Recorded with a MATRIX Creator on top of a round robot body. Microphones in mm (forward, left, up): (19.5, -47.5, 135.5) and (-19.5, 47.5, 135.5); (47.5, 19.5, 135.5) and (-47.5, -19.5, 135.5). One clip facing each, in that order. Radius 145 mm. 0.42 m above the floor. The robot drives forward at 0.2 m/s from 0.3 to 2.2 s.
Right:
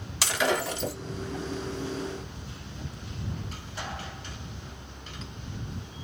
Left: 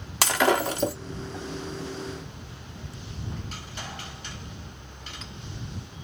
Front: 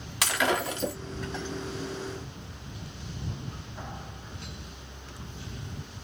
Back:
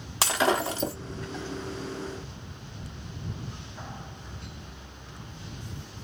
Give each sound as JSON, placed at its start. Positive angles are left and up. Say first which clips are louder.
{"t": 0.2, "sound": "breaking glass", "louder": "left 5 dB, back 2 dB", "azimuth_deg": 150, "distance_m": 1.5}